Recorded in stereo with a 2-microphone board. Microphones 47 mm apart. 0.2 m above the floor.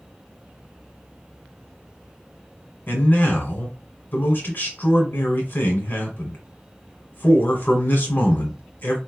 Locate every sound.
2.9 s a man speaking: 50° left (ahead or behind), 1.4 m